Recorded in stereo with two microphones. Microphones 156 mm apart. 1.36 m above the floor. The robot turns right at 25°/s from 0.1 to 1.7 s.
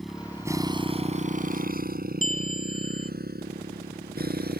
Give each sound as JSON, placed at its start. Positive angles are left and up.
{"t": 0.0, "sound": "a motorcycle", "side_deg": 0}
{"t": 2.2, "sound": "a bell", "side_deg": 55}